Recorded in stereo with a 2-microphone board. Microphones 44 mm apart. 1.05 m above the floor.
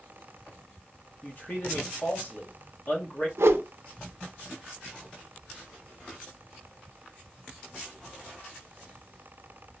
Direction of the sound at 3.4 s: 85° right.